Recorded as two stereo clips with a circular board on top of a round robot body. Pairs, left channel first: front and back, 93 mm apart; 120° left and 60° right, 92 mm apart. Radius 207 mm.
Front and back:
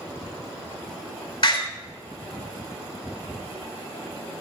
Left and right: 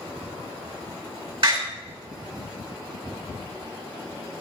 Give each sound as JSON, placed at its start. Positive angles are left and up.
{"t": 1.4, "sound": "a door slam", "azimuth_deg": -35, "distance_m": 5.5}